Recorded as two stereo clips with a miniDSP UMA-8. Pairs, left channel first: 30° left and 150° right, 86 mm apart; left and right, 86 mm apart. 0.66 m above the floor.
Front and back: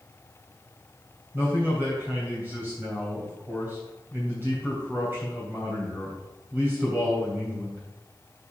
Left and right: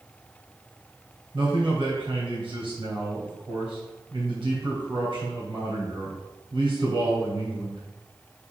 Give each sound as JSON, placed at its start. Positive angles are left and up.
{"t": 1.3, "sound": "a man speaking", "azimuth_deg": -85, "distance_m": 3.0}